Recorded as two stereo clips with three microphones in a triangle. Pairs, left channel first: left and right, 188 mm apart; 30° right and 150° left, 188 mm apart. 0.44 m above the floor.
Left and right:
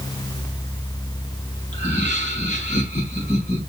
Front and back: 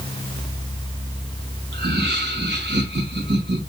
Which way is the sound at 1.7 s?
140° left.